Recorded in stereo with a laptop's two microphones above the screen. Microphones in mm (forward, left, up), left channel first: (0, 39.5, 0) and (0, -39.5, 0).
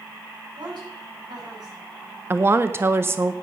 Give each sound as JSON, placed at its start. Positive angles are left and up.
{"t": 0.6, "sound": "a woman speaking", "side_deg": -60, "distance_m": 8.0}
{"t": 2.3, "sound": "a woman speaking", "side_deg": -30, "distance_m": 0.6}